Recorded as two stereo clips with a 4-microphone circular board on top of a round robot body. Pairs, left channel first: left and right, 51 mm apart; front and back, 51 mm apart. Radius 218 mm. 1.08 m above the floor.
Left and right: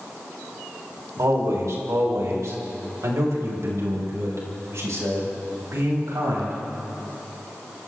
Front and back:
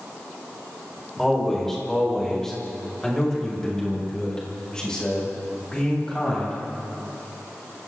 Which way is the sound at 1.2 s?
85° right.